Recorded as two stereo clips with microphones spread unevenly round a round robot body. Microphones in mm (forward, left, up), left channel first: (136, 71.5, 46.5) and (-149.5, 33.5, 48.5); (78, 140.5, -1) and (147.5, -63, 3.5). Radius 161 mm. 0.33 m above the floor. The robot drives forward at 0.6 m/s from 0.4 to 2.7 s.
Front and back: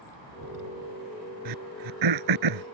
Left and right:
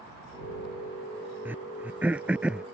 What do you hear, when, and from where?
1.4 s throat clearing: 155° right; by 2.6 s 160° right